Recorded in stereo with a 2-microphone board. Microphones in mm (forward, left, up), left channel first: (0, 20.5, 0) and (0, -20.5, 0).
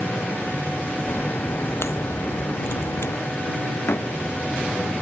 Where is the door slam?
75° left (ahead or behind).